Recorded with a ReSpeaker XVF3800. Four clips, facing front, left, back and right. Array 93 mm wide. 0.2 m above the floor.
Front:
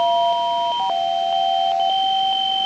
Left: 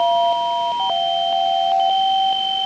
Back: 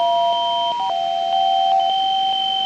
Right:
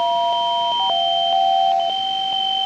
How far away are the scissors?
I don't hear scissors.